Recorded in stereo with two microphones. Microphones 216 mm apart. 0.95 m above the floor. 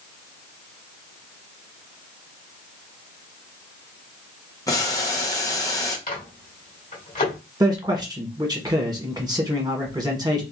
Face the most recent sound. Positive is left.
turn(degrees=-20)  # may be behind; listen again after turning